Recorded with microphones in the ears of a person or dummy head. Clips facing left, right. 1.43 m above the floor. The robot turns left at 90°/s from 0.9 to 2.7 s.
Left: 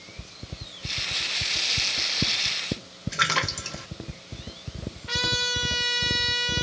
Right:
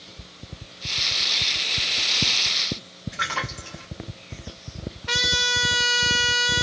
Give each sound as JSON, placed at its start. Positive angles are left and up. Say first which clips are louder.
{"t": 3.1, "sound": "a splash", "louder": "left 2 dB", "side_deg": 60, "distance_m": 1.2}
{"t": 5.1, "sound": "a trumpet", "louder": "right 2 dB", "side_deg": -85, "distance_m": 0.8}